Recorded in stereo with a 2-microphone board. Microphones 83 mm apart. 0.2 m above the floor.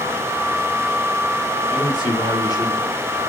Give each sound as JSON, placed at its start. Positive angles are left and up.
{"t": 1.7, "sound": "a man speaking", "side_deg": 50, "distance_m": 4.0}